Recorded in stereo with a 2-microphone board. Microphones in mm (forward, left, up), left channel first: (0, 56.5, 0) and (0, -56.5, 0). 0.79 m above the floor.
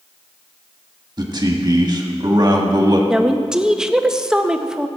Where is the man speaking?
40° right (ahead or behind), 1.5 m.